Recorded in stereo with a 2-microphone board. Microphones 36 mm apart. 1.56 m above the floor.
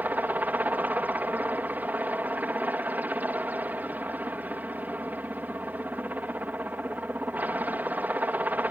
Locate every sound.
0.0 s a helicopter: 55° right (ahead or behind)